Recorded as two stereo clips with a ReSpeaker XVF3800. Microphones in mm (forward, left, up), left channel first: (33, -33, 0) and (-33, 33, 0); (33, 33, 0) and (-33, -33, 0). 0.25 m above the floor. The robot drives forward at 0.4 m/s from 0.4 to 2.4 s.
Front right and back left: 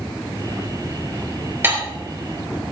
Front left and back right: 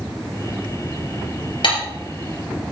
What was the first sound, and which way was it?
Dishes clattering, 70° left.